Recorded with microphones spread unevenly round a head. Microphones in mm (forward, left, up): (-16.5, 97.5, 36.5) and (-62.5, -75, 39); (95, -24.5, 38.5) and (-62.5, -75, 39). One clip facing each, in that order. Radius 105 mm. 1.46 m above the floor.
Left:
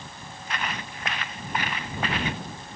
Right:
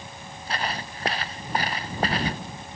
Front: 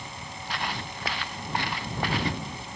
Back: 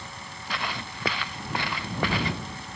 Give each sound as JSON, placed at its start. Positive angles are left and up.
{"t": 0.5, "sound": "footsteps", "azimuth_deg": -160}